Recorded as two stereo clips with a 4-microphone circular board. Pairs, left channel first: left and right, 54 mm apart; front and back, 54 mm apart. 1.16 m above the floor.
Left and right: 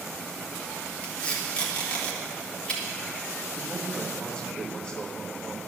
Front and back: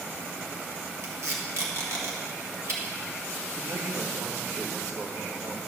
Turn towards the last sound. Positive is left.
turn(degrees=165)